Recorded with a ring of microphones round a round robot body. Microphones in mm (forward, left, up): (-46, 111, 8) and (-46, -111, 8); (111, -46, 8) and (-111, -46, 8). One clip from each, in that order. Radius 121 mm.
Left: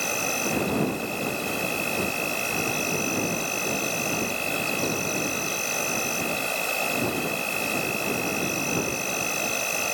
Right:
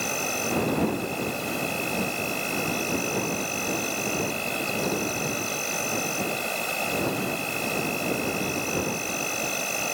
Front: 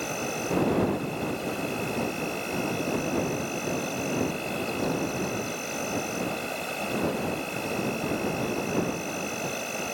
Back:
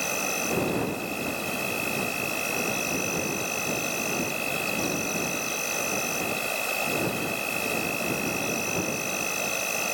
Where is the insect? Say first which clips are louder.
Left 1 dB, back 3 dB; 160° left.